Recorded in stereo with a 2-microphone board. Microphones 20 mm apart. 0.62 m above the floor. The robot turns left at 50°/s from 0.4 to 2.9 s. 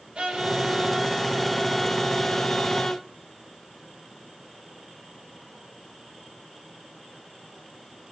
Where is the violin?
110° right, 2.5 m; by 3.0 s 125° left, 2.5 m.